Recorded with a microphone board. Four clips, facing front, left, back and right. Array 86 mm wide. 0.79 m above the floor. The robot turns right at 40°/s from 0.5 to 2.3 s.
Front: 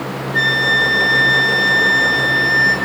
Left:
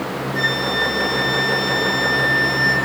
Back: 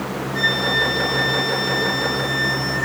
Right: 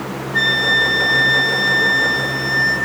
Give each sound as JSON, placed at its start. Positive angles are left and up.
{"t": 0.3, "sound": "a flute", "azimuth_deg": -45, "distance_m": 5.0}